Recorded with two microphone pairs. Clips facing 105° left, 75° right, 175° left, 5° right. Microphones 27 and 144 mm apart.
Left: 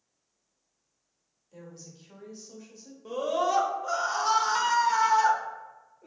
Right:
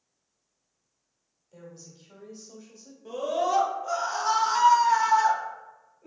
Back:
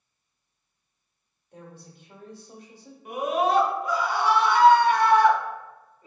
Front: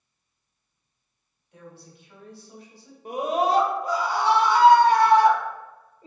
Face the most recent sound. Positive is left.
turn(degrees=25)